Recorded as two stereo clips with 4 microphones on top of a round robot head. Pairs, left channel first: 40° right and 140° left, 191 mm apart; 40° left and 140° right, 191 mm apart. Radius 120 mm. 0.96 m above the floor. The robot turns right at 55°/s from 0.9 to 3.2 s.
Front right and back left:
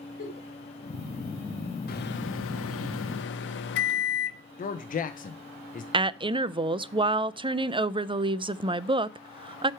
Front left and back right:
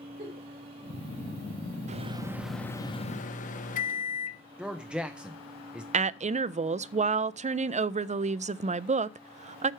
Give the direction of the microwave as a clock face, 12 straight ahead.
3 o'clock.